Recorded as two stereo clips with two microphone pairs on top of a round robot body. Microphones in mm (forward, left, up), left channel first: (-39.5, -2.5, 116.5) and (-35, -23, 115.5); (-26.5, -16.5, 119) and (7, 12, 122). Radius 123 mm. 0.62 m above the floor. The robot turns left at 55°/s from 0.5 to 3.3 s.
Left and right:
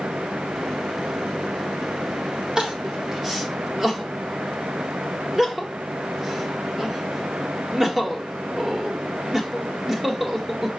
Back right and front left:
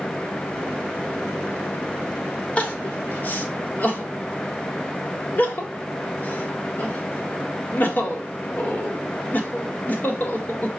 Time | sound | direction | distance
2.6 | crying | 100° right | 1.5 m